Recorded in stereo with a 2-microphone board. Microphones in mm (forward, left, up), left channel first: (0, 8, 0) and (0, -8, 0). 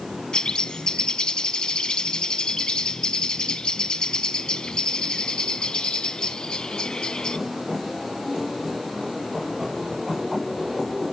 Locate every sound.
0.3 s a bird: 75° left (ahead or behind), 0.6 m